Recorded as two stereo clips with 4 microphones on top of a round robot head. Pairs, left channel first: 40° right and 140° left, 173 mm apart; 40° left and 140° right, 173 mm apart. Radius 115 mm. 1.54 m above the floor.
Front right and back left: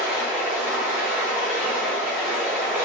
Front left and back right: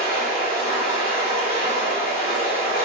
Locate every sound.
0.0 s running water: 65° left, 0.8 m